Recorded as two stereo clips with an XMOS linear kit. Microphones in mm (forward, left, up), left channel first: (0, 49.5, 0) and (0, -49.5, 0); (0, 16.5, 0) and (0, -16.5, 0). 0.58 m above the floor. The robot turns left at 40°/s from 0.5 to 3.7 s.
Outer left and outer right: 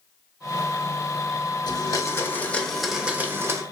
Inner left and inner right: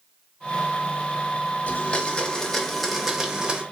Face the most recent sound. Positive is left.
turn(degrees=-35)